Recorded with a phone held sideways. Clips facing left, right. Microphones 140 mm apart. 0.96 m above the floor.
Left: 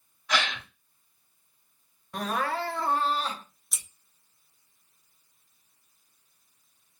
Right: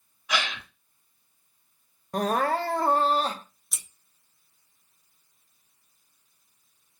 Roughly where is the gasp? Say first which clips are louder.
Left 1 dB; centre.